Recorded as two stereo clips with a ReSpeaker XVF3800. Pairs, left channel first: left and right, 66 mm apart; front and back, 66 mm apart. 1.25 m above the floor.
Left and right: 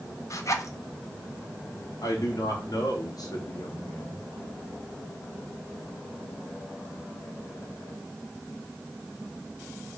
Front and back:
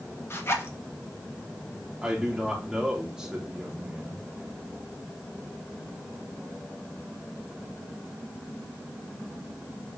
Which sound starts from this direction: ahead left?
A zipper, at 0.3 s.